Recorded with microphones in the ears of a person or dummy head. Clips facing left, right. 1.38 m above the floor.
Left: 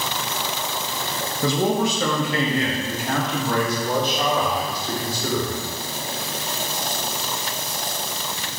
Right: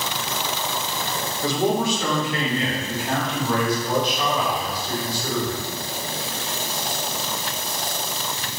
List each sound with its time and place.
1.4 s a man speaking: 70° left (ahead or behind), 2 m; by 5.6 s 45° left (ahead or behind), 5.5 m